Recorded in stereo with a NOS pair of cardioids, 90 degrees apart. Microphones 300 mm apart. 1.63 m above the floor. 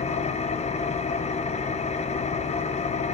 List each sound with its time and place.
0.0 s an engine running: 25° left, 0.7 m